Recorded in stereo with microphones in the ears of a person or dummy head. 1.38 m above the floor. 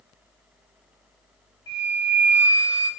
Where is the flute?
15° left (ahead or behind), 0.8 m.